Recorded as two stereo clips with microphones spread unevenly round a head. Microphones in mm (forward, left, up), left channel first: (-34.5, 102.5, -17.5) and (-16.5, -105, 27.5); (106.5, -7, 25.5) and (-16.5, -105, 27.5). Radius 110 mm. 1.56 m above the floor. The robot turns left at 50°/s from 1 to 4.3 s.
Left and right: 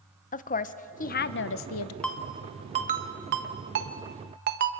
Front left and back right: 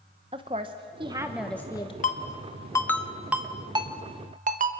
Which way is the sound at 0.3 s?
150° left.